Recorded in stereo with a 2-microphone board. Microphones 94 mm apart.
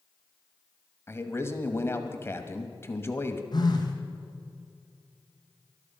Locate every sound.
1.1 s a man speaking: 25° left (ahead or behind), 1.2 m
3.5 s a phone buzzing: 45° left (ahead or behind), 2 m